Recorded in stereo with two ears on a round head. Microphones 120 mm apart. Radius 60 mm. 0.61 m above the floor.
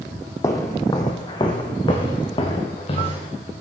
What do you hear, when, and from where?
0.4 s footsteps: 25° left (ahead or behind), 1.4 m; by 3.3 s 45° left (ahead or behind), 3 m